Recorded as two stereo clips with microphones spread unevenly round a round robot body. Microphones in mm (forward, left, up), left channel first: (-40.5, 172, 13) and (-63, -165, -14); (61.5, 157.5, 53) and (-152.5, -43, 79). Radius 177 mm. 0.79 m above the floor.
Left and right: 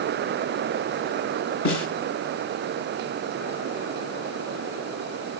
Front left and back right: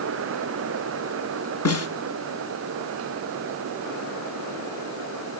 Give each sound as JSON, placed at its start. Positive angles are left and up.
{"t": 1.6, "sound": "a snare drum", "azimuth_deg": 75, "distance_m": 4.0}